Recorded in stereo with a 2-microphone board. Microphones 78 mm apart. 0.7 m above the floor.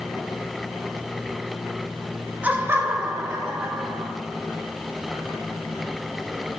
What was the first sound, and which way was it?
Laughter, 20° right (ahead or behind).